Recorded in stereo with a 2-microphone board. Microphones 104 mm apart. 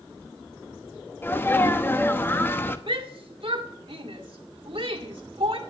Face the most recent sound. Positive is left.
turn(degrees=-60)  # may be behind; listen again after turning